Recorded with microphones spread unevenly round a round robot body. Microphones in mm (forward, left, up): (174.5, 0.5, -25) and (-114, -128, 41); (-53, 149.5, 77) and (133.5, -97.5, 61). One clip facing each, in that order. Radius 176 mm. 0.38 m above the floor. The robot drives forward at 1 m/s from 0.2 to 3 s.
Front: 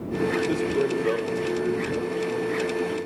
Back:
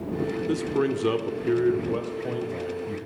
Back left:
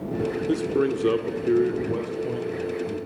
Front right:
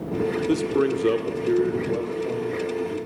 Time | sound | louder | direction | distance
0.5 | a man speaking | front 1 dB, front right 1 dB | 45° right | 1.0 m